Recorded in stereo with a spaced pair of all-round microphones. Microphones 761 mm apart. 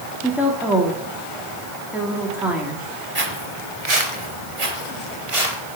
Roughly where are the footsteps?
Right.